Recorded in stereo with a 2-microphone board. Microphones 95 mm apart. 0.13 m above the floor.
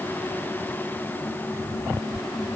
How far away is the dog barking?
No dog barking in this recording.